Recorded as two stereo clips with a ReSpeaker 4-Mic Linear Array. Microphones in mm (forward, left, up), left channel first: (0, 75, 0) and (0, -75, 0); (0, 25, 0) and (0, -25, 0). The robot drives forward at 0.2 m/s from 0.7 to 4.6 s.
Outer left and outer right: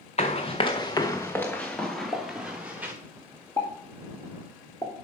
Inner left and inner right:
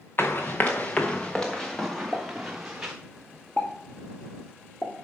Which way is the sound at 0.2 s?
45° left (ahead or behind).